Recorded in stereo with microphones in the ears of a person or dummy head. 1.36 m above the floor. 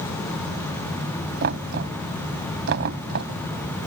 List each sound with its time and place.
1.4 s knocking: 55° right (ahead or behind)